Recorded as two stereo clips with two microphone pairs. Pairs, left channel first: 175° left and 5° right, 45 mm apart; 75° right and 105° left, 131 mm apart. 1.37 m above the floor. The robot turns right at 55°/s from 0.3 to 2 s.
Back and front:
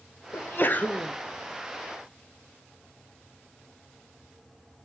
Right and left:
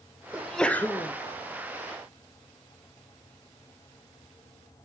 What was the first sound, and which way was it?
A sneeze, 175° right.